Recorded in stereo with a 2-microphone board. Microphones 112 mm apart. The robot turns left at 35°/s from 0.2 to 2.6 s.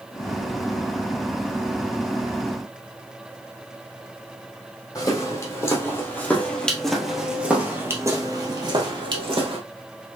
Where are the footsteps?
35° left (ahead or behind), 1.8 m; by 9.6 s 50° right (ahead or behind), 1.6 m.